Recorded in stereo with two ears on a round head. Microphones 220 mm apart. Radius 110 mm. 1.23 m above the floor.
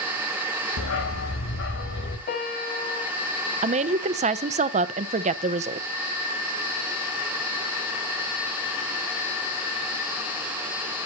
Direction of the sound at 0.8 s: 60° left (ahead or behind).